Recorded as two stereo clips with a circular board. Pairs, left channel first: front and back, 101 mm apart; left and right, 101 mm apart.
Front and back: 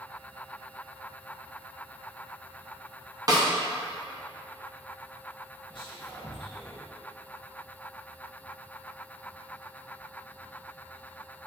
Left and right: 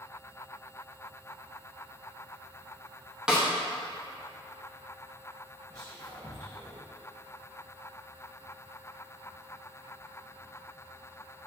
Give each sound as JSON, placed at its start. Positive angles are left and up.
{"t": 3.3, "sound": "a snare drum", "azimuth_deg": -170, "distance_m": 0.7}
{"t": 5.7, "sound": "whispering", "azimuth_deg": -40, "distance_m": 1.1}